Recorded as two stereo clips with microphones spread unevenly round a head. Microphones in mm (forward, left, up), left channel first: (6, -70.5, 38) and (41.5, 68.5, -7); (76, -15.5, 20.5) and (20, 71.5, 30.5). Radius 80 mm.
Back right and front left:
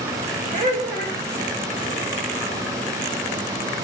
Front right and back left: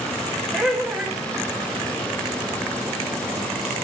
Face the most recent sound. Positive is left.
turn(degrees=35)